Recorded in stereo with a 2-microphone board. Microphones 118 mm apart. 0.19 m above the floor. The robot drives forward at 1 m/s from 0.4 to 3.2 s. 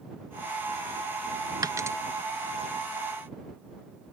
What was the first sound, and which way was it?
A dropped coin, 35° right (ahead or behind).